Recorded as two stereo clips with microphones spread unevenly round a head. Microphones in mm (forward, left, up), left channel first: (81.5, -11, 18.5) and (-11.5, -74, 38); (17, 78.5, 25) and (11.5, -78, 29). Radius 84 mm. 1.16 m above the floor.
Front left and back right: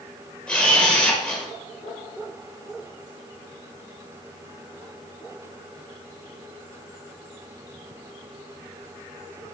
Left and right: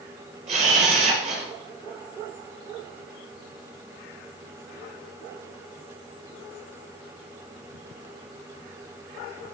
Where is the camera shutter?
50° right, 4 m.